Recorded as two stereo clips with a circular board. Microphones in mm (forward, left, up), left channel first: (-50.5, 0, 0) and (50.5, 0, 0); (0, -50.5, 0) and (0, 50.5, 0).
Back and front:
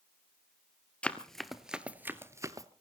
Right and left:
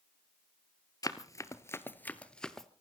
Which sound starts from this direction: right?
Running footsteps, at 1.0 s.